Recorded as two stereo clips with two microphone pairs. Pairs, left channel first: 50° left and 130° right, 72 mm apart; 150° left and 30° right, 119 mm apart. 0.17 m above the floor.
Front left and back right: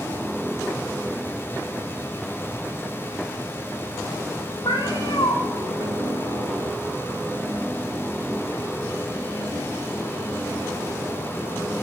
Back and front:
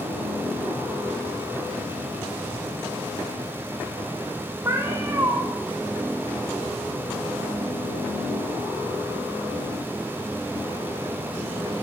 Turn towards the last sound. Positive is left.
turn(degrees=35)